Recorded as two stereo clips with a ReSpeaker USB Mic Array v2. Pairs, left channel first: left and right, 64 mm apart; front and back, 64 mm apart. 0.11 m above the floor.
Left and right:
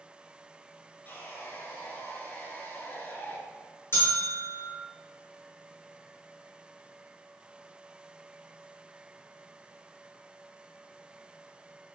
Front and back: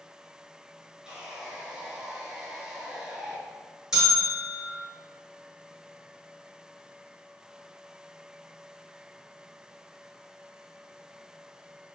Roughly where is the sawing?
Behind left.